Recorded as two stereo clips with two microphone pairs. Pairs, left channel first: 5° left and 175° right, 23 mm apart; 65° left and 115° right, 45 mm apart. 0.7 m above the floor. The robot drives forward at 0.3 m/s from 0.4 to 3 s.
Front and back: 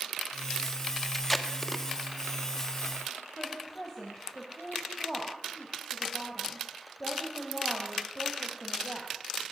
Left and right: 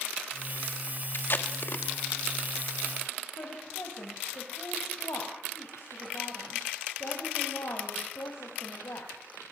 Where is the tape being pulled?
80° left, 1.4 m; by 1.8 s 90° left, 1.4 m.